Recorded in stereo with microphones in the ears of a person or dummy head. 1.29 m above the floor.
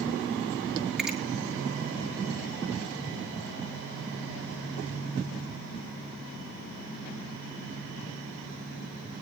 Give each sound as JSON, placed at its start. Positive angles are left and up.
{"t": 1.0, "sound": "a finger snap", "side_deg": -5, "distance_m": 2.5}